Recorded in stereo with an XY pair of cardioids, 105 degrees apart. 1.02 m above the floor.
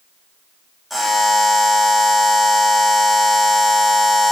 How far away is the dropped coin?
No dropped coin in this recording.